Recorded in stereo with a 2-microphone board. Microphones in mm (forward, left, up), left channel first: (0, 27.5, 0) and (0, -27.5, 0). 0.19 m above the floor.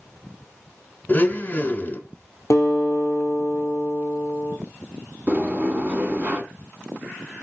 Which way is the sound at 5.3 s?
30° right (ahead or behind).